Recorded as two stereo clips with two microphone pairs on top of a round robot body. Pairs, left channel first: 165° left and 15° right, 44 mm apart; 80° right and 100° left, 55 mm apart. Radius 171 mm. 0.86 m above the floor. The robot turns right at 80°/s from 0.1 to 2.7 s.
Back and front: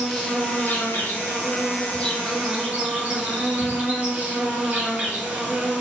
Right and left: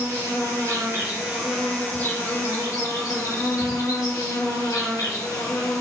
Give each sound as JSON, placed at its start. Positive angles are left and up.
{"t": 0.0, "sound": "an insect", "azimuth_deg": 80, "distance_m": 3.0}